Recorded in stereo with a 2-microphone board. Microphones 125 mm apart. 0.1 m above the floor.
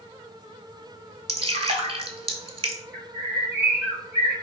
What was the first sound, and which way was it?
Dripping, 50° right (ahead or behind).